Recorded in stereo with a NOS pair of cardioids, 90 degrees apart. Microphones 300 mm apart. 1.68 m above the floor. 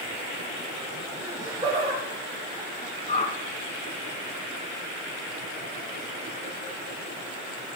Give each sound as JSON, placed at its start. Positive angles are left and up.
{"t": 1.2, "sound": "laughter", "azimuth_deg": -5, "distance_m": 1.6}
{"t": 3.1, "sound": "a whoosh", "azimuth_deg": 20, "distance_m": 1.2}